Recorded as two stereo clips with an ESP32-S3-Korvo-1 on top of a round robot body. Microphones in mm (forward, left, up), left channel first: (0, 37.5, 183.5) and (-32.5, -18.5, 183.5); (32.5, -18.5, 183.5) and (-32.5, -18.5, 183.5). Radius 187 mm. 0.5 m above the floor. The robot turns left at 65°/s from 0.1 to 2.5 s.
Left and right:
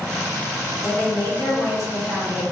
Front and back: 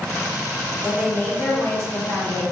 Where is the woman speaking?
95° left, 1.9 m; by 2.4 s 10° right, 1.9 m.